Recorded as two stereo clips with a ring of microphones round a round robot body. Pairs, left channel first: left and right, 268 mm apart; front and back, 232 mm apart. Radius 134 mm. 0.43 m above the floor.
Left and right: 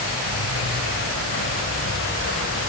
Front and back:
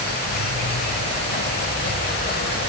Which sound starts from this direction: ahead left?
An insect, at 0.0 s.